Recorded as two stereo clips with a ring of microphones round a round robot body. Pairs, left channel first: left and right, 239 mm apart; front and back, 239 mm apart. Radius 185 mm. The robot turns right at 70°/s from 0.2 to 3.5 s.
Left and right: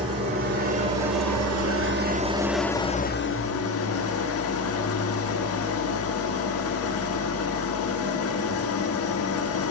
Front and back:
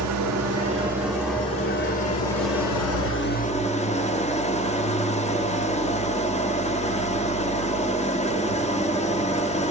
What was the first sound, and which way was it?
An engine running, 165° right.